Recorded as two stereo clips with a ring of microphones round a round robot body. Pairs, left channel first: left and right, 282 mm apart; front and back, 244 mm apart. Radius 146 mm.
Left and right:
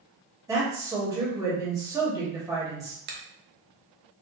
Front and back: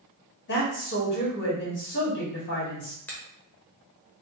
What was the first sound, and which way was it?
A woman speaking, 15° right.